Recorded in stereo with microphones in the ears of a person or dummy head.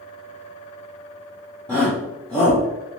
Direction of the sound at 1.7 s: 5° left (ahead or behind).